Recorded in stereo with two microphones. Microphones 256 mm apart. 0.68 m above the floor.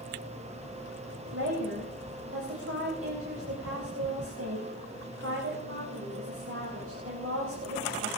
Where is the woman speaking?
60° right (ahead or behind), 4.5 m.